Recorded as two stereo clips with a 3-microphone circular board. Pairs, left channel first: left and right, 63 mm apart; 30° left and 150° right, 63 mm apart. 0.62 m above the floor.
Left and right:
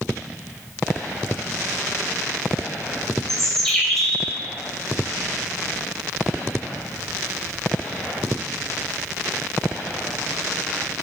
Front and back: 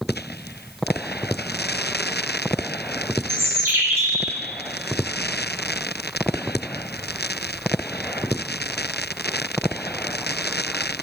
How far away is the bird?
About 2 m.